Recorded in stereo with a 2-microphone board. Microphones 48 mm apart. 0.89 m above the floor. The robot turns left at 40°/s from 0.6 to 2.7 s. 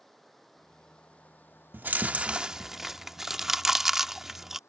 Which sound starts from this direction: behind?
Running water, at 0.0 s.